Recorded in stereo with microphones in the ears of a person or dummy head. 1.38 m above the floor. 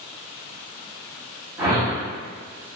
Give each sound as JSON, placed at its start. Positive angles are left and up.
{"t": 1.6, "sound": "a whoosh", "side_deg": -15, "distance_m": 0.9}